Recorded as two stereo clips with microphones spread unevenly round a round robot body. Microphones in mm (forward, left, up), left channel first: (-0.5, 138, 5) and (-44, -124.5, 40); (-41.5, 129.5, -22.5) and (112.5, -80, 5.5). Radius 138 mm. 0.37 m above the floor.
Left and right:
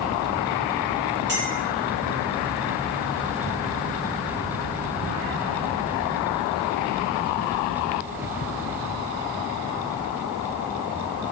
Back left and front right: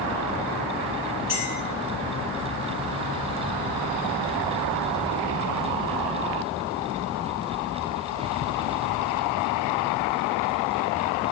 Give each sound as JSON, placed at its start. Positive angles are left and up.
{"t": 1.3, "sound": "a clink", "azimuth_deg": -135, "distance_m": 4.5}